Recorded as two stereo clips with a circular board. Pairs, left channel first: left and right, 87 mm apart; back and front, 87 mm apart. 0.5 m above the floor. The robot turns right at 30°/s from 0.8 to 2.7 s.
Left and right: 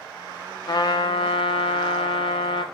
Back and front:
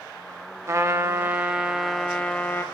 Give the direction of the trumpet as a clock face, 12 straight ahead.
10 o'clock.